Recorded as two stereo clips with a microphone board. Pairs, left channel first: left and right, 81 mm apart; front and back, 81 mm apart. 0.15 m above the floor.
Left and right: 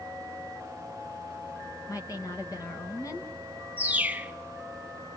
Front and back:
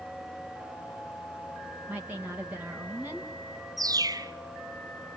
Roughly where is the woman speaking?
Behind left.